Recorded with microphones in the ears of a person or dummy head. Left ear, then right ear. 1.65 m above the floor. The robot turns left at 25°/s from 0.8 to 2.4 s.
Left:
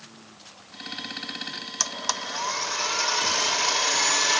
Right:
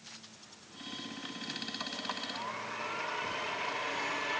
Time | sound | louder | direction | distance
1.8 | a blender | left 15 dB | 75° left (ahead or behind) | ?